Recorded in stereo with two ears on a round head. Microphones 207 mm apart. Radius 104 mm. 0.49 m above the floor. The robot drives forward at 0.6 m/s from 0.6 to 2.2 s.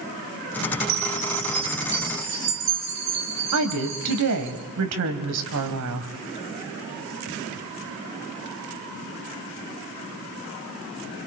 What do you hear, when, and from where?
0.9 s a chime: 70° right (ahead or behind), 4.5 m; by 4.5 s 60° right (ahead or behind), 4.5 m
3.5 s a woman speaking: 70° right (ahead or behind), 2.5 m